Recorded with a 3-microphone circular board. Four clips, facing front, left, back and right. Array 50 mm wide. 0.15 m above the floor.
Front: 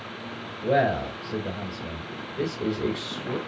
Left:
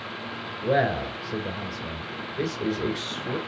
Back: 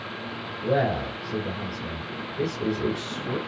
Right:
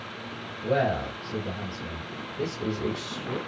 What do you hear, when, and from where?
0.6 s a man speaking: 55° left, 2.5 m